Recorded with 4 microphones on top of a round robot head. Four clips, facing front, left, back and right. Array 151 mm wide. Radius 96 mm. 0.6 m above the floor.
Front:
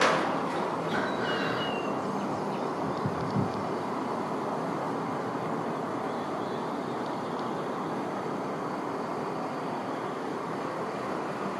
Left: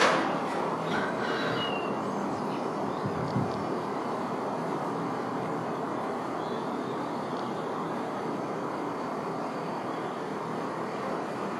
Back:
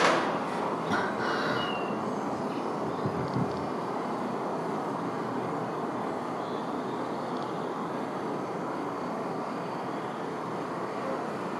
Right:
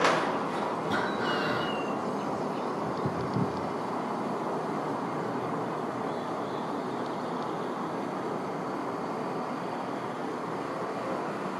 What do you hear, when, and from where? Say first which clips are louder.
0.9 s breathing: right 1 dB, back 1 dB; 145° right, 2 m